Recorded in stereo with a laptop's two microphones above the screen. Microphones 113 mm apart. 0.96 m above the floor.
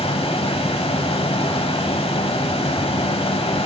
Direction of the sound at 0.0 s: 55° left (ahead or behind).